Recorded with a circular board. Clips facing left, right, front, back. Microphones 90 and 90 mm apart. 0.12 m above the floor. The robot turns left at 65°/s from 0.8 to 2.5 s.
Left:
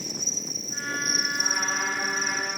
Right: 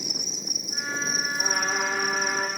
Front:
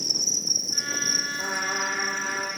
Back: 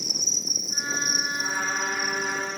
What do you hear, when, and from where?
0.0 s an insect: 15° right, 0.8 m; by 2.6 s 130° right, 0.8 m
1.4 s a trumpet: 55° right, 4 m; by 2.5 s 125° right, 4 m